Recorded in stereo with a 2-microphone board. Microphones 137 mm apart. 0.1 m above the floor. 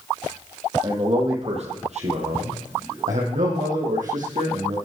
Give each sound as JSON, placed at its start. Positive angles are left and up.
{"t": 0.8, "sound": "a man speaking", "side_deg": -40, "distance_m": 3.0}